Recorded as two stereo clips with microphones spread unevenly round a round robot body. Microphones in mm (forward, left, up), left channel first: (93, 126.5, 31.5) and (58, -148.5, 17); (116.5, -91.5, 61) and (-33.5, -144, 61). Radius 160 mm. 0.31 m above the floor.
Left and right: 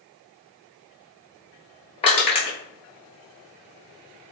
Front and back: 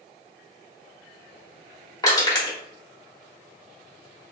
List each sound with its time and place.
2.0 s crushing: 35° left, 1.3 m